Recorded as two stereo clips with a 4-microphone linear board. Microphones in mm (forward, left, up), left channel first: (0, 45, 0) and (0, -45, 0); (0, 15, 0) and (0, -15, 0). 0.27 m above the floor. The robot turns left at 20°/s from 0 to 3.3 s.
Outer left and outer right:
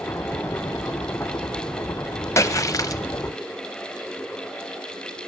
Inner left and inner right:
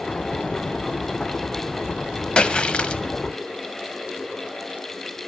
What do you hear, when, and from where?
2.4 s a splash: 30° left (ahead or behind), 0.6 m; by 3.0 s 40° left (ahead or behind), 0.6 m